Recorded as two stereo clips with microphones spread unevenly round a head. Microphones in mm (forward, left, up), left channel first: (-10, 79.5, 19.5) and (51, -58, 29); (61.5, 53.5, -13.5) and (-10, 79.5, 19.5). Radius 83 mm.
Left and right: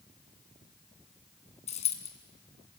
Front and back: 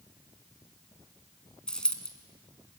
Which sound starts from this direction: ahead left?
A dropped coin, at 1.7 s.